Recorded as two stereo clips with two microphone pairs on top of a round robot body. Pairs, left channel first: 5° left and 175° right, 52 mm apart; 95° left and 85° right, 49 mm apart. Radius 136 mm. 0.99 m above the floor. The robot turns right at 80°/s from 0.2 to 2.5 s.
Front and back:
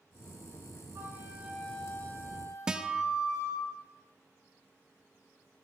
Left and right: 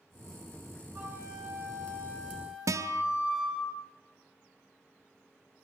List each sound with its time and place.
0.9 s a flute: 135° right, 8.5 m; by 3.7 s 15° right, 8.5 m
2.7 s a guitar: 100° right, 1.1 m